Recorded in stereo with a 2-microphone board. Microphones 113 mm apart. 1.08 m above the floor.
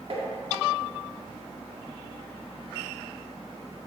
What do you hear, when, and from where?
0.1 s tapping: 50° right (ahead or behind), 1.7 m